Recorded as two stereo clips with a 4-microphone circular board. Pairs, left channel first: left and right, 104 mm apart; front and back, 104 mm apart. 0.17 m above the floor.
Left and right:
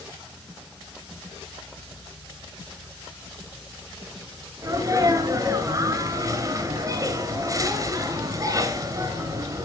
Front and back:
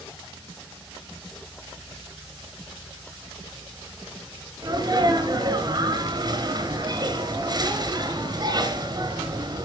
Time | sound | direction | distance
4.6 | a sneeze | 140° right | 2.5 m